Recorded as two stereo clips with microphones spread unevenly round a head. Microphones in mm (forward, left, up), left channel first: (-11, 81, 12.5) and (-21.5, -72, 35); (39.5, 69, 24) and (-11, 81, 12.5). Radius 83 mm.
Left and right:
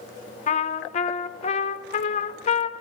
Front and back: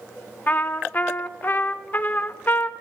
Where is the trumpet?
45° left, 0.6 m.